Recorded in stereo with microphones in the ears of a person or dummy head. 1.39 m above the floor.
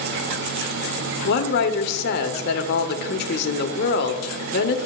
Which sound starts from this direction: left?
A woman speaking, at 1.2 s.